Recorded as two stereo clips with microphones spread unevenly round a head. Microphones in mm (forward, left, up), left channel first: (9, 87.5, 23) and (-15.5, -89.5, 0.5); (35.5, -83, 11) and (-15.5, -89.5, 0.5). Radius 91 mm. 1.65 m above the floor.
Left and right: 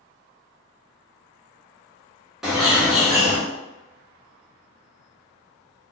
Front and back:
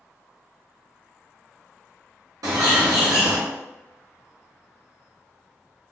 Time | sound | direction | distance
2.4 | a bird | 175° left | 0.9 m